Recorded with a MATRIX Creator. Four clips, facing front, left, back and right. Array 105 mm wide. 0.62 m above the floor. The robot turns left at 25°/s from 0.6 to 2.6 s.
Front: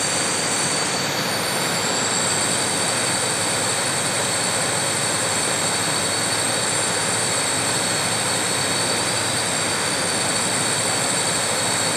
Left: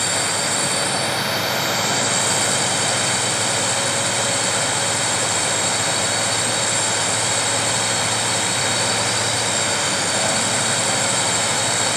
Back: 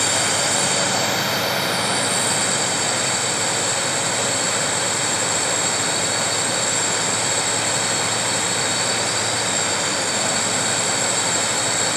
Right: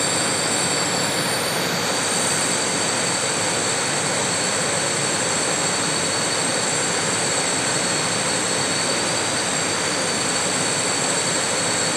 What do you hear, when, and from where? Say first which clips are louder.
0.0 s a drone: right 1 dB, back 2 dB; 155° left; by 12.0 s 105° left